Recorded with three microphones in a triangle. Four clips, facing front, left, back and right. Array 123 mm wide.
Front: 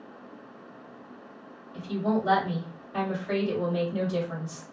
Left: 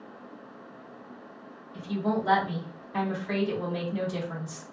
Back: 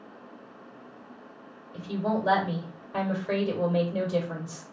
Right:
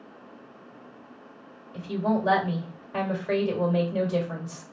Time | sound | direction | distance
1.7 | a woman speaking | 125° right | 1.8 m